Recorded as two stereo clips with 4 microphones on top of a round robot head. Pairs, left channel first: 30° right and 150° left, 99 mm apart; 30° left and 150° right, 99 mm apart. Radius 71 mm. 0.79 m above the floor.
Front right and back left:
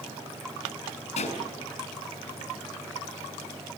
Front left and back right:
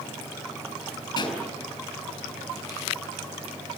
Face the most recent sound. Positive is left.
turn(degrees=-20)